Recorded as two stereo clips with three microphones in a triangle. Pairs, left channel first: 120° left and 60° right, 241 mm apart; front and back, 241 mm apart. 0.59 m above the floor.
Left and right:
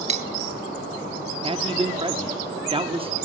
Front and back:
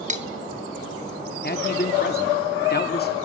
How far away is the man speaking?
About 0.7 m.